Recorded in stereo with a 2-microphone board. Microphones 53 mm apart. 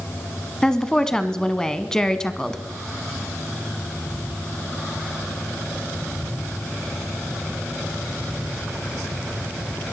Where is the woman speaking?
10° left (ahead or behind), 1.1 m.